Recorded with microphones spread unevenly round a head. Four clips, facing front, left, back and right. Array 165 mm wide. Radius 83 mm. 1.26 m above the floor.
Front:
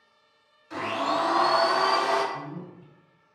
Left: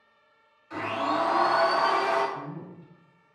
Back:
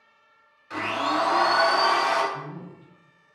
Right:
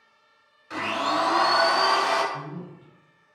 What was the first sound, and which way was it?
A blender, 130° right.